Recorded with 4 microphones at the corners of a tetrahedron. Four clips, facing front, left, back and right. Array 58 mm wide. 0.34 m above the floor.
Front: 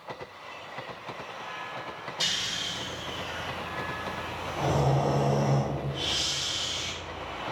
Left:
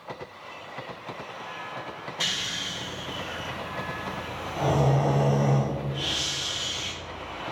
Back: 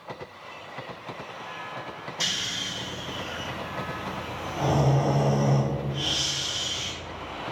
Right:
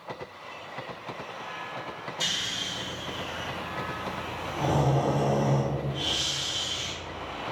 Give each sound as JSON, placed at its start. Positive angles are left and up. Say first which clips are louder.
{"t": 2.2, "sound": "snoring", "louder": "left 1 dB, back 1 dB", "azimuth_deg": 105, "distance_m": 1.9}